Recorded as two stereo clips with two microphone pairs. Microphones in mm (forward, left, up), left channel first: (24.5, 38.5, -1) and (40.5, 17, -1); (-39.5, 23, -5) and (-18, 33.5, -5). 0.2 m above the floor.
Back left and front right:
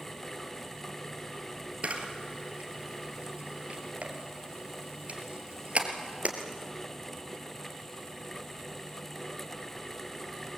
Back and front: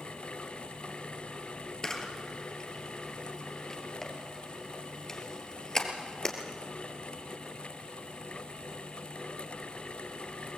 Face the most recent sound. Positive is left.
turn(degrees=-85)